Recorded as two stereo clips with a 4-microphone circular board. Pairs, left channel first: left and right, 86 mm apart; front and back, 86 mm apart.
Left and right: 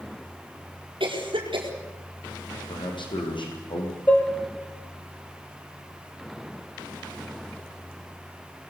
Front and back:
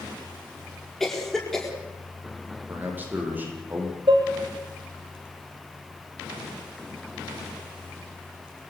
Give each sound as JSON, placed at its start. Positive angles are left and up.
{"t": 1.0, "sound": "a cough", "azimuth_deg": -85, "distance_m": 4.5}
{"t": 2.7, "sound": "a man speaking", "azimuth_deg": 110, "distance_m": 6.0}
{"t": 4.1, "sound": "dishes clattering", "azimuth_deg": 160, "distance_m": 3.0}